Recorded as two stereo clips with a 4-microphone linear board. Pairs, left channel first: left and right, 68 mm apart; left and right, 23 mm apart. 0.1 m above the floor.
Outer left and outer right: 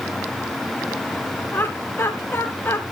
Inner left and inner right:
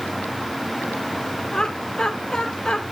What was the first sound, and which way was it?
Laughter, 30° left (ahead or behind).